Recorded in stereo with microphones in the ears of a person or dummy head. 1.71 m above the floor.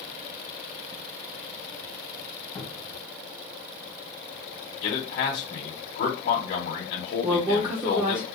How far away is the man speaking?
About 1.2 m.